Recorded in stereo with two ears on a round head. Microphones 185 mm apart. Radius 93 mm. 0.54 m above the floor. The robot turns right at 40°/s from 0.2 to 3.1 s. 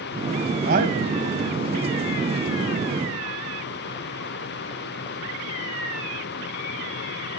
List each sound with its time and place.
0.7 s a man speaking: 50° right (ahead or behind), 2.5 m; by 1.2 s 30° right (ahead or behind), 2.5 m